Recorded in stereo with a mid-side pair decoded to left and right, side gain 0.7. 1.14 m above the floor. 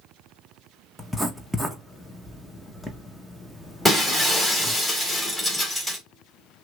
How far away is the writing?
About 1.2 m.